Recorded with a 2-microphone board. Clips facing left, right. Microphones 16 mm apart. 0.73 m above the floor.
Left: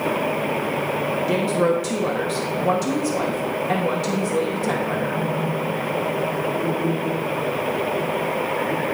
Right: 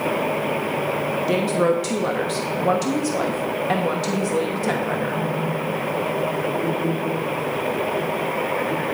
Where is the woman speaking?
20° right (ahead or behind), 0.8 m.